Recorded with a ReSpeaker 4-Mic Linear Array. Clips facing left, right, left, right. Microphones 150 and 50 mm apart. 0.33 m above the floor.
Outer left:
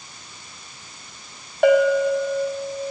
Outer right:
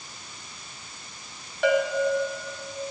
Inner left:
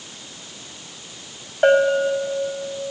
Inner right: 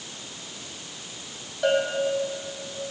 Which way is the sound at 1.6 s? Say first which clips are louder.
Outer left 7 dB, inner left 8 dB; 50° left (ahead or behind).